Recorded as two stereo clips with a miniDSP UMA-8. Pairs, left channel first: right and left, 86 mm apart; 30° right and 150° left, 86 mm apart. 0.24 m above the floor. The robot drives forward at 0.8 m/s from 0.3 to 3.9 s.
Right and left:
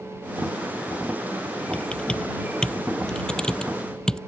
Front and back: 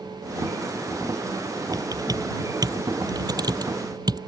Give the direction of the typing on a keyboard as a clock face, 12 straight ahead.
6 o'clock.